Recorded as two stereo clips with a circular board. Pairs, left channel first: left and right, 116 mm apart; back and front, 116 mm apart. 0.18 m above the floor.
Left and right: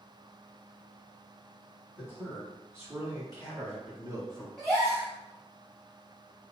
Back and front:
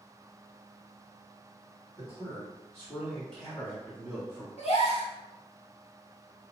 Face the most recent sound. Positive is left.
turn(degrees=175)